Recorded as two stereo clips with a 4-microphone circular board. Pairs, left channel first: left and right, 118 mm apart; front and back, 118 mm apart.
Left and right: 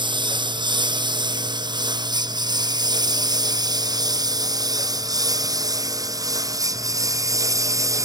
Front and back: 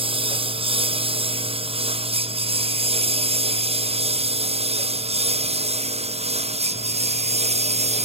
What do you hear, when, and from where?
0.0 s a lawn mower: 140° right; by 8.1 s 155° right